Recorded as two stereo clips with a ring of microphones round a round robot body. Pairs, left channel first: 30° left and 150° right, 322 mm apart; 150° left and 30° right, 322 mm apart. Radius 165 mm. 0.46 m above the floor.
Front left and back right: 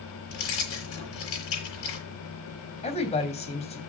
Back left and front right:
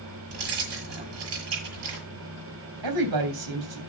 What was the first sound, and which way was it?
Keys jangling, 20° right.